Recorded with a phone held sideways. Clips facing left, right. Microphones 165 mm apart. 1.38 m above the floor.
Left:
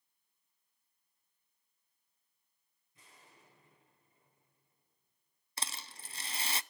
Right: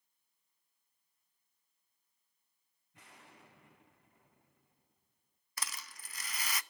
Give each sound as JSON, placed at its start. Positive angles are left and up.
{"t": 2.9, "sound": "an explosion", "side_deg": -70, "distance_m": 3.5}
{"t": 5.6, "sound": "a rattle", "side_deg": 30, "distance_m": 0.7}